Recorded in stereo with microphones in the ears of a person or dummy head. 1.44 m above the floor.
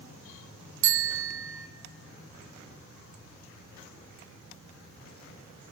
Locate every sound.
0.8 s a bicycle bell: 70° right (ahead or behind), 2.5 m